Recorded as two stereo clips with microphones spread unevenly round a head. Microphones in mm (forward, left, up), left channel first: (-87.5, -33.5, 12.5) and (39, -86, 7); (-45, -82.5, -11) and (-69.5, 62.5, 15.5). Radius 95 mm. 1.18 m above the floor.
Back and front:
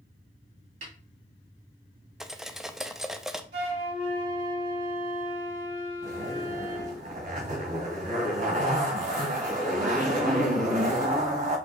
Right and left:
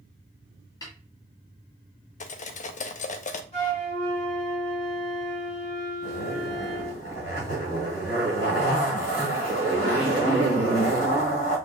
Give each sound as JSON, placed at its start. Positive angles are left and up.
{"t": 0.8, "sound": "a snare drum", "azimuth_deg": -5, "distance_m": 1.7}
{"t": 2.2, "sound": "cutlery clinking", "azimuth_deg": -110, "distance_m": 0.6}
{"t": 3.5, "sound": "a flute", "azimuth_deg": -25, "distance_m": 2.5}
{"t": 6.0, "sound": "a zipper", "azimuth_deg": -30, "distance_m": 2.5}